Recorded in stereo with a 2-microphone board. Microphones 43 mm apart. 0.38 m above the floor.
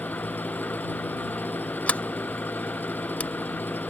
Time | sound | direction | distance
0.0 | an engine running | 55° left (ahead or behind) | ?
1.9 | a sliding door | 35° left (ahead or behind) | ?